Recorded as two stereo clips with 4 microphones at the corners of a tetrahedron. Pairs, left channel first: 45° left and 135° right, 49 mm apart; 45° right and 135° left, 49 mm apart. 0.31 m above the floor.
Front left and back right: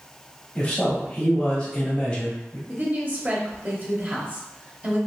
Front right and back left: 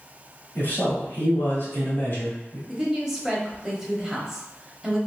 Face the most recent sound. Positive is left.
turn(degrees=-150)